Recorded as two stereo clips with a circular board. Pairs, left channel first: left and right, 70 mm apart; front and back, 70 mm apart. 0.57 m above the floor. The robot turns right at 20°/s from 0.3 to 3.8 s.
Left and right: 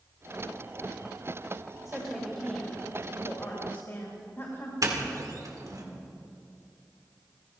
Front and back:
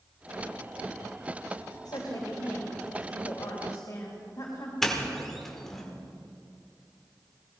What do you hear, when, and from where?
1.9 s a woman speaking: straight ahead, 2.5 m; by 4.7 s 40° left, 2.5 m
4.8 s a doorbell: 85° right, 2.0 m